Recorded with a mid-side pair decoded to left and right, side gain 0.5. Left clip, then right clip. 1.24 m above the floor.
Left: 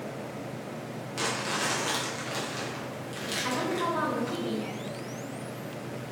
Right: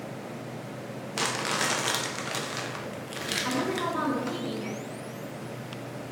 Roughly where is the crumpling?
Ahead right.